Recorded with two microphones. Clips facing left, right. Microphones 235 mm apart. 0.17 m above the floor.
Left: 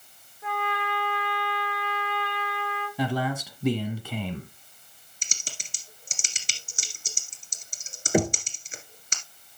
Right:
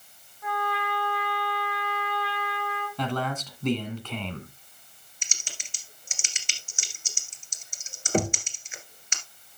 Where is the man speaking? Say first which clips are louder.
Left 3 dB; 10° left (ahead or behind), 1.6 m.